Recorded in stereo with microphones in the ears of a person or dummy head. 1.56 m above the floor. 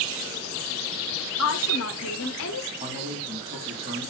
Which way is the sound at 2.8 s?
25° right (ahead or behind).